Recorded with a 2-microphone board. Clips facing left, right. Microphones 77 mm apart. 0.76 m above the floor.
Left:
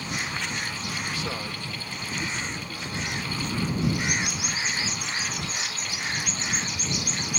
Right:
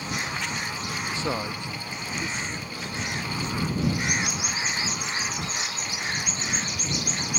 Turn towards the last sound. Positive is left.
turn(degrees=0)  # may be behind; listen again after turning